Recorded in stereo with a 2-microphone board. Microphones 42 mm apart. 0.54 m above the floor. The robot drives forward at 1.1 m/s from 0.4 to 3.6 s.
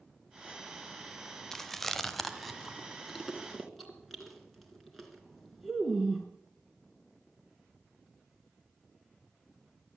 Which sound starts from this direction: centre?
Chewing, at 1.5 s.